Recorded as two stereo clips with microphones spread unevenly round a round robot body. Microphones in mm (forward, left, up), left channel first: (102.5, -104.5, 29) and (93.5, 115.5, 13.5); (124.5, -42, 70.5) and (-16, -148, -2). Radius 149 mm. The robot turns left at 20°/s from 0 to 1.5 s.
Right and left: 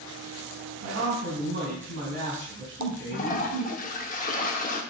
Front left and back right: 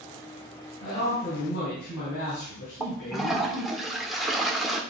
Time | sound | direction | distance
0.8 | a man speaking | 75° left | 4 m
2.8 | a toilet flushing | 100° right | 1.3 m